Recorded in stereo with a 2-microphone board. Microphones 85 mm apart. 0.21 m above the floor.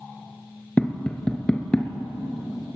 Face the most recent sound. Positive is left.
turn(degrees=10)  # may be behind; listen again after turning